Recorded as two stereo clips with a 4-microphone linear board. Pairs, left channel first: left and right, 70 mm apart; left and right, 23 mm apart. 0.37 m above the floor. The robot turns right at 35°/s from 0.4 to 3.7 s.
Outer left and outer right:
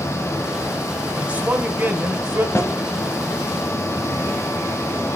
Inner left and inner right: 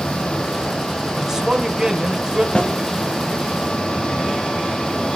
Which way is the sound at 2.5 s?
40° left (ahead or behind).